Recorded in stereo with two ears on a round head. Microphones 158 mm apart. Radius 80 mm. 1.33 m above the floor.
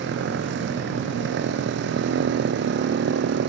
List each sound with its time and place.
0.0 s a motorcycle: 70° right (ahead or behind)